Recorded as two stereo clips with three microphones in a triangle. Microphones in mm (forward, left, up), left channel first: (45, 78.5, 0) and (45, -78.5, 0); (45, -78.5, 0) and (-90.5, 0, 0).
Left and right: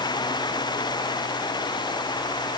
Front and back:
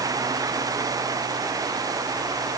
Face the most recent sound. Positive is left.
No sound to turn to.